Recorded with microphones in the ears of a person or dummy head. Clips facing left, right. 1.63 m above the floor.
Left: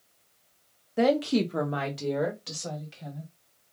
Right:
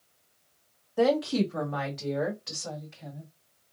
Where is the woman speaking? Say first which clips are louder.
Left 1 dB; 30° left (ahead or behind), 0.8 m; by 3.3 s 45° left (ahead or behind), 2.0 m.